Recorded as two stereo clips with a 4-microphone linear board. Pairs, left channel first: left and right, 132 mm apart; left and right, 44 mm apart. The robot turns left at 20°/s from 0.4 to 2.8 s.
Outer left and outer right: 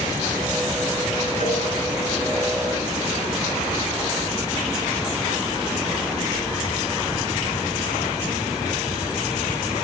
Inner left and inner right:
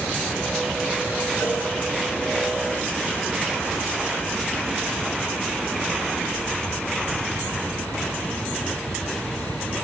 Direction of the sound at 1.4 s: 70° left (ahead or behind).